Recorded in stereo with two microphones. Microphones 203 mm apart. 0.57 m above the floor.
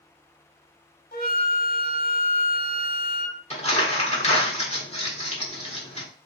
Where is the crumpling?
30° left (ahead or behind), 1.3 m.